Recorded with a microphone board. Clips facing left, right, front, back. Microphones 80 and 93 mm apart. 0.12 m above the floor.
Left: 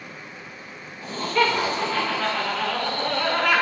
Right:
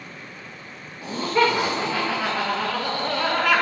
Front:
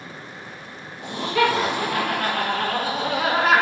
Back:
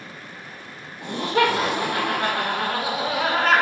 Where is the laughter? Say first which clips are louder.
Right 2 dB, even; 155° right, 2.5 m; by 3.6 s straight ahead, 1.6 m.